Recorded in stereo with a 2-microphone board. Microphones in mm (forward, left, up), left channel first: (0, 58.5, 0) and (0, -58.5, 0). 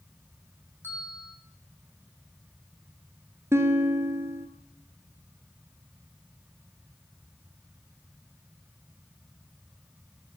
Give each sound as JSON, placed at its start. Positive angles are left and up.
{"t": 0.8, "sound": "a bell", "side_deg": 15, "distance_m": 7.0}
{"t": 3.5, "sound": "a guitar", "side_deg": -25, "distance_m": 1.8}